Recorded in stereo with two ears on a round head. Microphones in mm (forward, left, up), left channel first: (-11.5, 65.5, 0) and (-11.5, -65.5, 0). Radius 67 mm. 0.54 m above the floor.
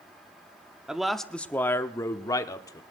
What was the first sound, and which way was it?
A man speaking, 5° right (ahead or behind).